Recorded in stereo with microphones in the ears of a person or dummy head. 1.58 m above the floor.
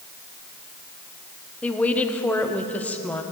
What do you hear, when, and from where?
1.6 s a woman speaking: 10° left (ahead or behind), 0.8 m